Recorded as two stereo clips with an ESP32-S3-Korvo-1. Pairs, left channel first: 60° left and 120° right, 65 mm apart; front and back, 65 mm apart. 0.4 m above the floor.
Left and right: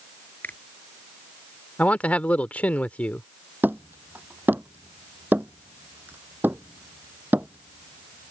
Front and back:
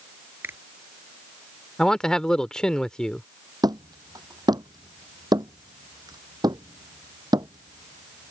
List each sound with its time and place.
0.4 s a finger snap: 125° left
1.8 s a man speaking: 60° left
3.6 s hammering: straight behind